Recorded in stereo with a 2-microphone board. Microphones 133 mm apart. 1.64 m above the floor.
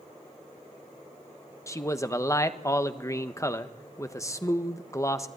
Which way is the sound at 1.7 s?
25° left (ahead or behind).